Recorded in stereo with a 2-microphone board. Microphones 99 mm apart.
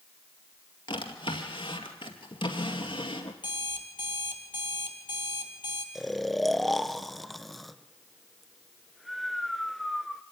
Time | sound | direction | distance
0.9 | a drawer | 60° left (ahead or behind) | 2 m
3.4 | an alarm clock | 50° left (ahead or behind) | 2 m
6.0 | snoring | centre (ahead or behind) | 0.5 m